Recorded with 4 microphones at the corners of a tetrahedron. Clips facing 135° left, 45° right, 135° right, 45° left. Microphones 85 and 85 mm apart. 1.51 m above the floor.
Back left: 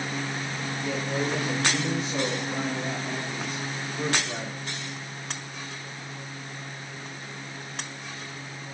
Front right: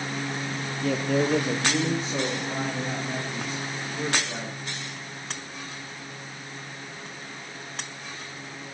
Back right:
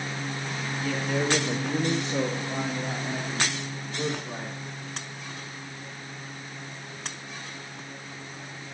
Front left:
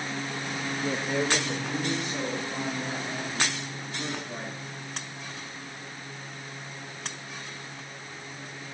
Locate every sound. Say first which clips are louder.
0.8 s a man speaking: front right 6 dB, back right 1 dB; 15° right, 0.9 m; by 4.5 s 130° right, 4.5 m